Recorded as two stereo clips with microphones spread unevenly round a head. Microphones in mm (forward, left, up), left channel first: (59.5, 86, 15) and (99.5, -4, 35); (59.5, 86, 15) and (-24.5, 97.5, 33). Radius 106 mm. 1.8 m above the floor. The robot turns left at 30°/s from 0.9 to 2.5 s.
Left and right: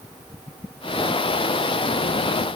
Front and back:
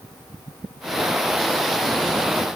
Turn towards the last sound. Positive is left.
No sound to turn to.